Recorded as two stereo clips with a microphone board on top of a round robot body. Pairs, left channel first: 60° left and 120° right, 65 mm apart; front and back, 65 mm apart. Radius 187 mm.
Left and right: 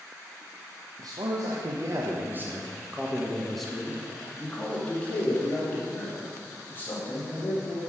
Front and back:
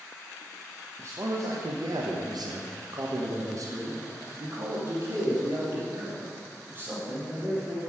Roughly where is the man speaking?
Behind right.